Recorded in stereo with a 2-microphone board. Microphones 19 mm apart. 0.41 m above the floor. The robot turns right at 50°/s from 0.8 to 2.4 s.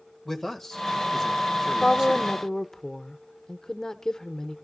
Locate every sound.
0.2 s a man speaking: 150° left, 1.7 m; by 2.3 s 135° right, 1.7 m
1.7 s a woman speaking: 65° left, 1.0 m; by 4.5 s 105° left, 1.0 m